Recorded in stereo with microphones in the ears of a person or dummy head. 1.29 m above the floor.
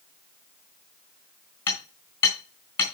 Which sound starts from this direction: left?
Hammering, at 1.7 s.